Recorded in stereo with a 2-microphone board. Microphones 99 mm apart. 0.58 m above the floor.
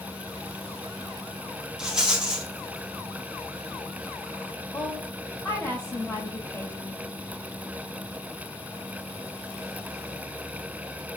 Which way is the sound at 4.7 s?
15° left (ahead or behind).